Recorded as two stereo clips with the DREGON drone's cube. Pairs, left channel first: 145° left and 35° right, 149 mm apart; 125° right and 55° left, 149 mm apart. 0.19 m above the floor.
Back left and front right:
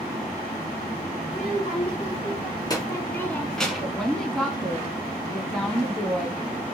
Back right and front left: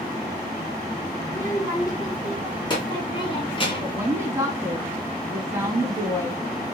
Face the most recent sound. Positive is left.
turn(degrees=65)